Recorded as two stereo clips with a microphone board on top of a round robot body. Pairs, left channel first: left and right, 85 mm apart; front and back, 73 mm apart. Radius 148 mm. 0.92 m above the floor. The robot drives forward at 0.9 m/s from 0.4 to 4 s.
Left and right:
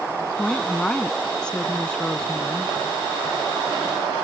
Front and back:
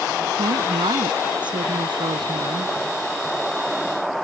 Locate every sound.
0.3 s a woman speaking: 170° left